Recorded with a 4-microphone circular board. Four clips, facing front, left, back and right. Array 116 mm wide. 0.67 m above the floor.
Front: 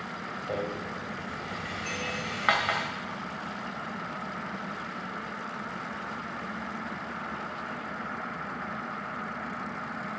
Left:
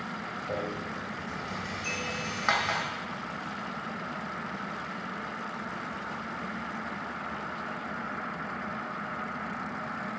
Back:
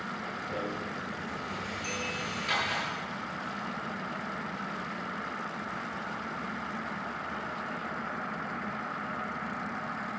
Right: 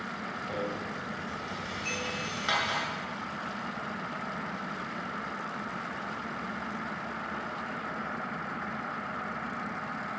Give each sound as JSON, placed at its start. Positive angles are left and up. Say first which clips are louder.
{"t": 0.5, "sound": "a rattle", "louder": "left 1 dB, front 4 dB", "azimuth_deg": 25, "distance_m": 2.5}
{"t": 1.8, "sound": "a bell", "louder": "even, front 1 dB", "azimuth_deg": 35, "distance_m": 7.5}